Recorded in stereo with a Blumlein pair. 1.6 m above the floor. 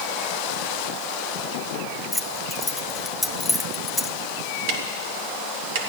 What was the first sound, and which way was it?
Keys jangling, 5° left.